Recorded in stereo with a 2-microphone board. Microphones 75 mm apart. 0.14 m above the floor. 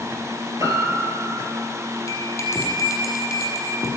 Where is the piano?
45° right (ahead or behind), 2.5 m.